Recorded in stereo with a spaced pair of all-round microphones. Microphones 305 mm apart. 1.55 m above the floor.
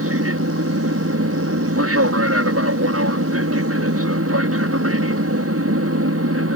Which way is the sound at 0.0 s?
55° right (ahead or behind).